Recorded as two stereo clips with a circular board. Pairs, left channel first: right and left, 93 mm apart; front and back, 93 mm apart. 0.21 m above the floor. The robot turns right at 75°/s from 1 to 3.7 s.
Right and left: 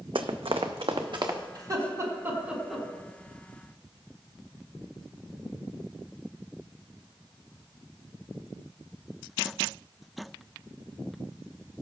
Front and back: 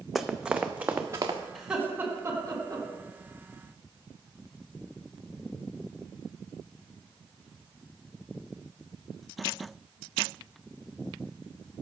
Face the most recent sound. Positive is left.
turn(degrees=-110)